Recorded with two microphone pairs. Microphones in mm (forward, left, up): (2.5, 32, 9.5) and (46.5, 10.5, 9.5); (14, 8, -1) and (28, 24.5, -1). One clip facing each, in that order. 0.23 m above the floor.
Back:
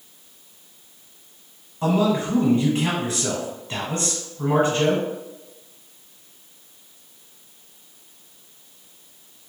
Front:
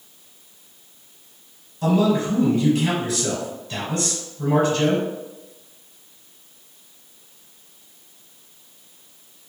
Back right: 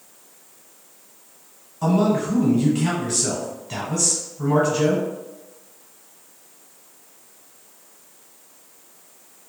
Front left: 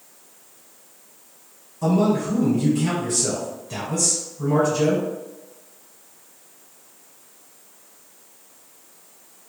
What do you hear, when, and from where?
1.8 s a man speaking: 170° right, 1.3 m